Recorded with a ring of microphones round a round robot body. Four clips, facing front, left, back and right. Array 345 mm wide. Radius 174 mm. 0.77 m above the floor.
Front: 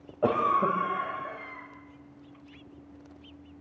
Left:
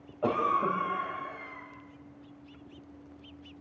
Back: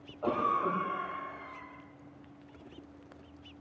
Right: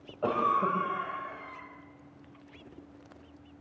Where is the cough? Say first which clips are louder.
Even, front 5 dB; 10° right, 4 m.